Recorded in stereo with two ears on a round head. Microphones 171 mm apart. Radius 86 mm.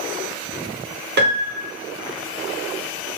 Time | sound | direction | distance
1.2 | a piano | 55° right (ahead or behind) | 0.6 m